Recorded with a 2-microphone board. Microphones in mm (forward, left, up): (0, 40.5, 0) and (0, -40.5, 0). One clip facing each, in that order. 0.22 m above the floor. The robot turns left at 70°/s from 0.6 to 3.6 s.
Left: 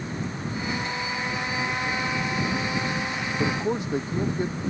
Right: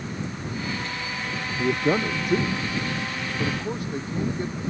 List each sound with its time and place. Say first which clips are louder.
1.6 s a man speaking: right 9 dB; 60° right (ahead or behind); by 4.5 s 20° left (ahead or behind)